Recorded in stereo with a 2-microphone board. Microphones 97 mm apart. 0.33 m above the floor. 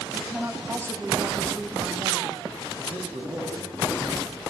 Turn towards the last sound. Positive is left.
turn(degrees=-65)  # may be behind; listen again after turning